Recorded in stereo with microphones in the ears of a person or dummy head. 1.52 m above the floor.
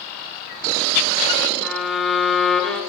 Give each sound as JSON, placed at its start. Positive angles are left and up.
{"t": 1.6, "sound": "a violin", "side_deg": 5, "distance_m": 1.3}